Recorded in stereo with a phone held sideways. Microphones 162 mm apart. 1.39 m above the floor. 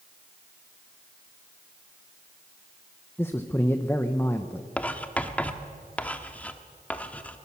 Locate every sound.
3.2 s a man speaking: 15° left (ahead or behind), 0.9 m
4.8 s writing: 10° left (ahead or behind), 1.1 m